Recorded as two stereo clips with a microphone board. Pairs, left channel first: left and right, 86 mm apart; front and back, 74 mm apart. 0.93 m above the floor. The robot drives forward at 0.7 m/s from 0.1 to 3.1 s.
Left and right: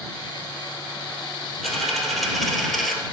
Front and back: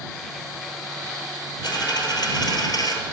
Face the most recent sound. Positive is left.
turn(degrees=0)